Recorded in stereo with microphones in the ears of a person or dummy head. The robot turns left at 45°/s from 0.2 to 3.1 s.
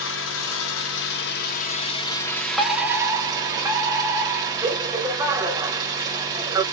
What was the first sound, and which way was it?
An engine running, 110° left.